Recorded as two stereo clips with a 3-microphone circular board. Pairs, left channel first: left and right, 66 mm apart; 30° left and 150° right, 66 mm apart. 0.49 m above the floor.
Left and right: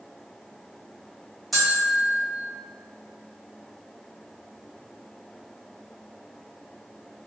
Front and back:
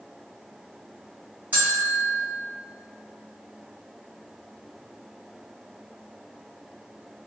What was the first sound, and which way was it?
A bell, 175° left.